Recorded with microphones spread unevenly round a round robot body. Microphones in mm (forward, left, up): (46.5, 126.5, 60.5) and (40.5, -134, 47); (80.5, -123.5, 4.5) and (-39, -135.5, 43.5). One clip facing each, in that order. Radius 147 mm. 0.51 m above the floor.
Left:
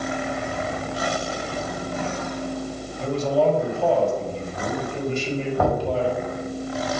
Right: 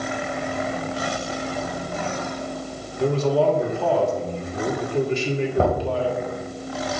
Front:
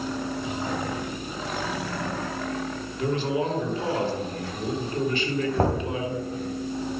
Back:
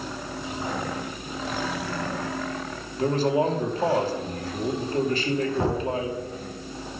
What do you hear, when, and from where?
3.0 s a man speaking: 115° right, 2.5 m
5.6 s knocking: 30° right, 3 m